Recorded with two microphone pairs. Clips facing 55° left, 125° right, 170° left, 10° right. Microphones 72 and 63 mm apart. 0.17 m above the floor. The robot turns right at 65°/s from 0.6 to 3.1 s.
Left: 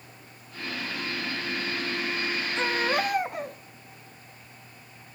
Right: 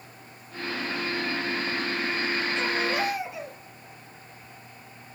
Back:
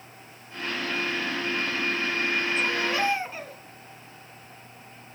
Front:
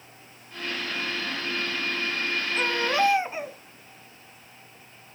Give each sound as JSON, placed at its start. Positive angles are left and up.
{"t": 2.6, "sound": "a baby crying", "azimuth_deg": 15, "distance_m": 0.9}